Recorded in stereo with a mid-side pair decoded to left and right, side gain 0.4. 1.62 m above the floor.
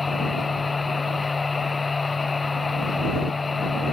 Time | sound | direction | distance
0.0 | a machine running | 30° left | ?